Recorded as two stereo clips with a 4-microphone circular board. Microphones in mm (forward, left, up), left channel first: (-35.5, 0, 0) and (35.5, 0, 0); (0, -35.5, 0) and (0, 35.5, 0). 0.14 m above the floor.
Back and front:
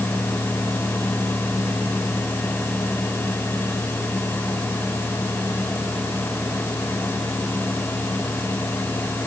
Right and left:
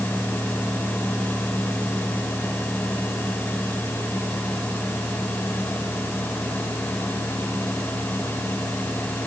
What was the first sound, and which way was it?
Only background noise.